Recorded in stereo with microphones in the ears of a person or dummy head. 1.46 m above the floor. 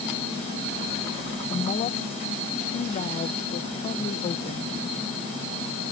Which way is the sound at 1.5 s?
30° left (ahead or behind).